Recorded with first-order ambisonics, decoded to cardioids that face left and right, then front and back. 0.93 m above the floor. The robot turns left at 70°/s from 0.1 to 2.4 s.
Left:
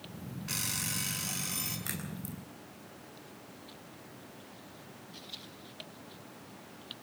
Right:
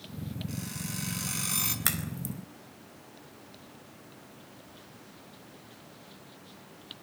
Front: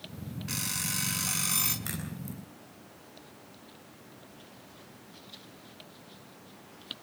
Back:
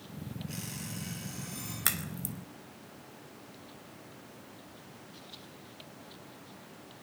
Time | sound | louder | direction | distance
0.5 | an alarm clock | left 9 dB, front 12 dB | 40° left | 5.5 m
1.9 | a crack | right 7 dB, back 5 dB | 130° right | 4 m